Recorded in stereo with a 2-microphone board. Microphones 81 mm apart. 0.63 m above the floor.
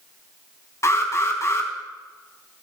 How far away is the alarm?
About 3 m.